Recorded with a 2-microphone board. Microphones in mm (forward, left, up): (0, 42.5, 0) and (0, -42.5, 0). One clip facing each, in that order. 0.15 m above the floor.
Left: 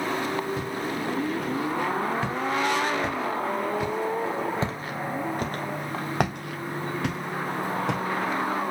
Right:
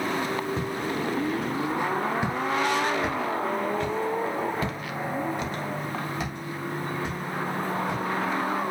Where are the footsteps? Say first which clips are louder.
Right 1 dB; 30° right (ahead or behind), 2.5 m; by 8.0 s 85° left, 2 m.